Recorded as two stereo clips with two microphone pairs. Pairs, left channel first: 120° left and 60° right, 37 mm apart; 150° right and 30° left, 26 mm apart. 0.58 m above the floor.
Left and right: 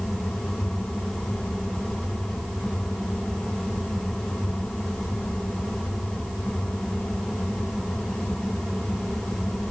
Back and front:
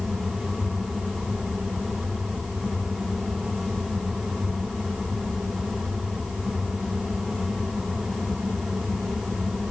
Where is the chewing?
I don't hear chewing.